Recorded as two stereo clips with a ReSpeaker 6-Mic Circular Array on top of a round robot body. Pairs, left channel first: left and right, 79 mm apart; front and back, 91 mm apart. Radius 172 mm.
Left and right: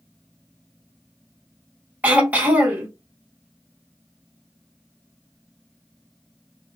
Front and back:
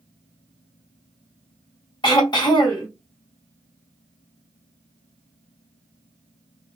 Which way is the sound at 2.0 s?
20° right.